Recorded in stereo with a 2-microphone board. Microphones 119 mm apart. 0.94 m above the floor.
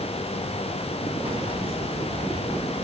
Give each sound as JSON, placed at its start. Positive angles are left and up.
{"t": 1.2, "sound": "keys jangling", "side_deg": -55, "distance_m": 2.5}